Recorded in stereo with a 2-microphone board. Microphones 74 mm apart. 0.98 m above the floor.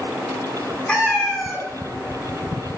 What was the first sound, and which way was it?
A cat meowing, 15° left (ahead or behind).